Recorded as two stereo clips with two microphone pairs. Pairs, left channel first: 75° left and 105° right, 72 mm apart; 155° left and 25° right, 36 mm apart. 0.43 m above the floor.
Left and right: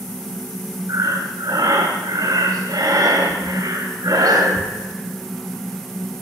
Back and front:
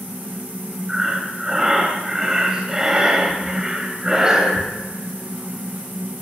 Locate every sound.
0.9 s breathing: 95° right, 2.5 m